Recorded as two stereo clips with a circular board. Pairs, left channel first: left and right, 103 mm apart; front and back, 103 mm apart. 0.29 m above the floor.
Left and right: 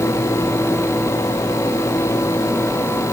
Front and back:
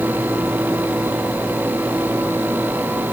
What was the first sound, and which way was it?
Only background noise.